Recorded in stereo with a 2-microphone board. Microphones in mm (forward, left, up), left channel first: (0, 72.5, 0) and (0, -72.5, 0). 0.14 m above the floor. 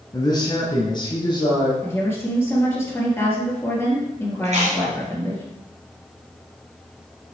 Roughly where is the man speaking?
Left.